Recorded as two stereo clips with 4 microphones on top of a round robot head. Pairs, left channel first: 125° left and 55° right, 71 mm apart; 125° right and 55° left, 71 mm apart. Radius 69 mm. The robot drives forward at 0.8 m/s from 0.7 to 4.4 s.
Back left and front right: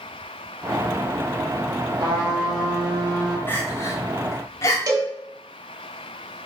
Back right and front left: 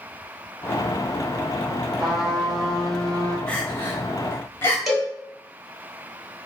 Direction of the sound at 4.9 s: 35° right.